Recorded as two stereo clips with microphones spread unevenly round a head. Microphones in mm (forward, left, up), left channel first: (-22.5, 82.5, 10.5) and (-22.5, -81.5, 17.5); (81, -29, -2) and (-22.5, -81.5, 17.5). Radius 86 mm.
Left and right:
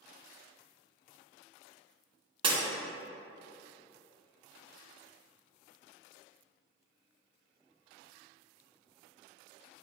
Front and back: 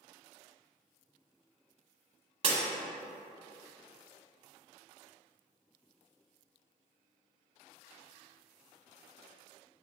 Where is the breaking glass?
145° right, 1.7 m.